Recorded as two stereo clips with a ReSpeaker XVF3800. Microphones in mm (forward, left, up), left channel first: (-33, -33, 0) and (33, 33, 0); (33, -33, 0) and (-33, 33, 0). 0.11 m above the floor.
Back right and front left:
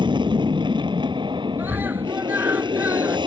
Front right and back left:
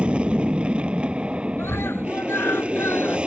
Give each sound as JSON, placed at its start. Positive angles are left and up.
{"t": 0.0, "sound": "an aircraft", "azimuth_deg": 60}
{"t": 1.6, "sound": "a scream", "azimuth_deg": -10}